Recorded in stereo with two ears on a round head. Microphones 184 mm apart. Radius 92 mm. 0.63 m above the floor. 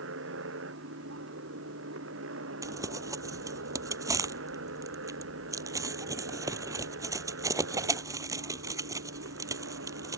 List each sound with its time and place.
0.0 s a motorcycle: 65° right (ahead or behind); by 10.2 s 70° right (ahead or behind)
2.6 s crumpling: 15° right (ahead or behind)